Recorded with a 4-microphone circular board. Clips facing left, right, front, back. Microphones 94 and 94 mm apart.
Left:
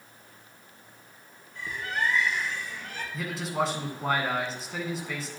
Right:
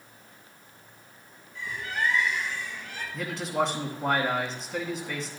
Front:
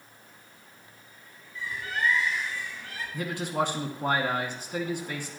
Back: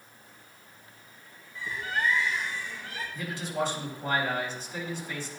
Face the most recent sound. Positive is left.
turn(degrees=0)